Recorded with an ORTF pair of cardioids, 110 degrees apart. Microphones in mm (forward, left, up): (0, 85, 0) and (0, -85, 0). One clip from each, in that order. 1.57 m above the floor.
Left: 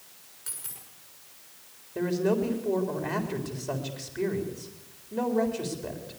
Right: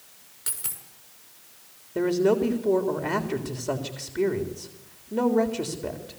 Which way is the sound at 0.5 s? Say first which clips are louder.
Right 6 dB; 55° right.